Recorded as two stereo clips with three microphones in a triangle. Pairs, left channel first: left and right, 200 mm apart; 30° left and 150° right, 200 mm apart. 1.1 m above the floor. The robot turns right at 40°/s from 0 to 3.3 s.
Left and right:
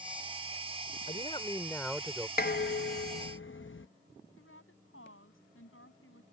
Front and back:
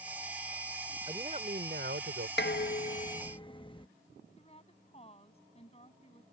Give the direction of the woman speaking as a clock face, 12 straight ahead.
9 o'clock.